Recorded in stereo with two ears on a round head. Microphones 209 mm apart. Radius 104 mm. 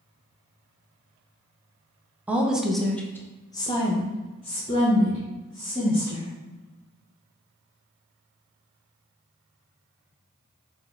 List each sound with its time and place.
2.3 s a woman speaking: 5° right (ahead or behind), 0.7 m; by 6.3 s 25° left (ahead or behind), 1.7 m